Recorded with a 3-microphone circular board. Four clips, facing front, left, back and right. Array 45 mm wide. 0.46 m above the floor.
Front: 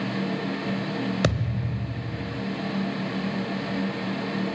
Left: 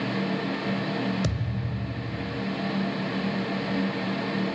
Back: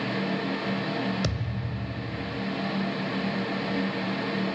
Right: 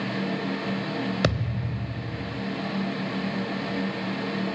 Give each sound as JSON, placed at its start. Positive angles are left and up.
{"t": 1.2, "sound": "a thud", "azimuth_deg": -50, "distance_m": 0.7}